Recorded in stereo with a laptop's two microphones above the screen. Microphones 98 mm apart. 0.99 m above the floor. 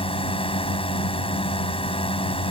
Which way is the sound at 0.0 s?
70° left (ahead or behind).